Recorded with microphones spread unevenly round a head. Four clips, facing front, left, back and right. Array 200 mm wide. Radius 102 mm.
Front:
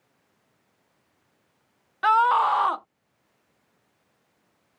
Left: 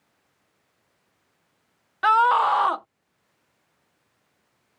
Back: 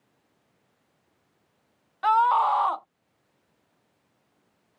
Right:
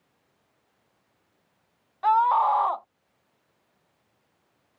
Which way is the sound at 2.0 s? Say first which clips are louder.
Left 2 dB, front 1 dB; 75° left.